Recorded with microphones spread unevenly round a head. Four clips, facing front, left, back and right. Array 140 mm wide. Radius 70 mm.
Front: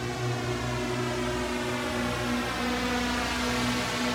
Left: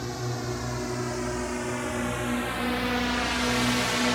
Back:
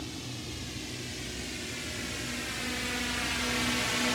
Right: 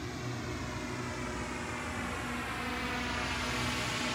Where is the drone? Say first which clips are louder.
Left 7 dB, front 9 dB; 40° left; by 4.2 s 90° left.